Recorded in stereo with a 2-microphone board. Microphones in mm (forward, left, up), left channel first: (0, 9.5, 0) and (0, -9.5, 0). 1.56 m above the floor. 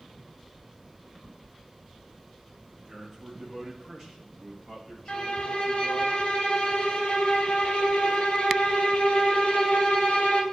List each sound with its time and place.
2.7 s a man speaking: centre (ahead or behind), 2 m; by 6.1 s 50° left (ahead or behind), 2.5 m
5.1 s a violin: 70° left (ahead or behind), 1.5 m